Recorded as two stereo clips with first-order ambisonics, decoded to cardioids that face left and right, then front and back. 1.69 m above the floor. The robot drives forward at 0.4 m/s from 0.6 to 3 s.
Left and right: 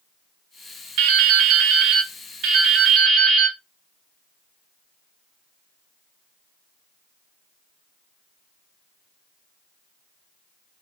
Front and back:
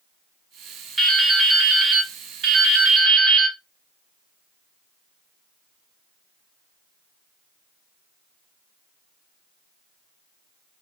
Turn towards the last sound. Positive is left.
turn(degrees=-140)